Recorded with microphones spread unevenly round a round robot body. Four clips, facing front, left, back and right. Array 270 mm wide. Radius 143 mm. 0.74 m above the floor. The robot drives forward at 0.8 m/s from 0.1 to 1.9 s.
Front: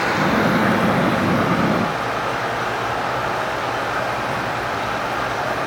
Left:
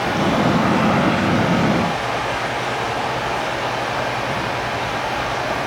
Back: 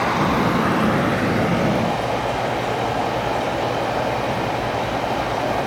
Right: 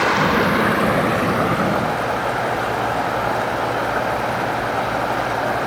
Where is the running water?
85° right, 1.1 m; by 5.7 s 140° right, 1.8 m.